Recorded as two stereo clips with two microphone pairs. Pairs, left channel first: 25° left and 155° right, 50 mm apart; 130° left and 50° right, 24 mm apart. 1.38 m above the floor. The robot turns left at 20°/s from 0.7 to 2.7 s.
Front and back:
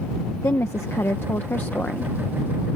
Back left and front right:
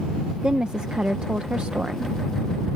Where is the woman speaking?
Straight ahead; by 2.1 s 30° right.